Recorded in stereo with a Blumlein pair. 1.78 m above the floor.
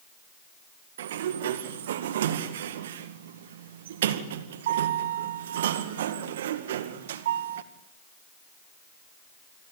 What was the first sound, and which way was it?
A sliding door, 60° right.